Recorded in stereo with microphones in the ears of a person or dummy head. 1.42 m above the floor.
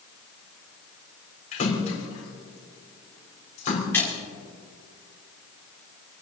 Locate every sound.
1.5 s a splash: 40° left (ahead or behind), 4 m
3.9 s a splash: 15° left (ahead or behind), 5 m